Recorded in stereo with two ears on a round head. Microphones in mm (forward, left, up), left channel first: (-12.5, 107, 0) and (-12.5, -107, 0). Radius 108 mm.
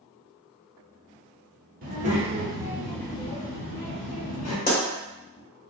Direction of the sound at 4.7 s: 40° left (ahead or behind).